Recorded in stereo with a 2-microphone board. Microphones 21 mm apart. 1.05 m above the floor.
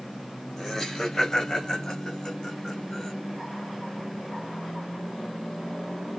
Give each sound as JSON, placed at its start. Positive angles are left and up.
{"t": 0.6, "sound": "laughter", "side_deg": 15, "distance_m": 6.5}